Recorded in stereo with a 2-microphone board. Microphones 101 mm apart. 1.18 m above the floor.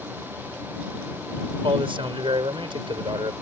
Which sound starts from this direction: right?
A man speaking, at 1.6 s.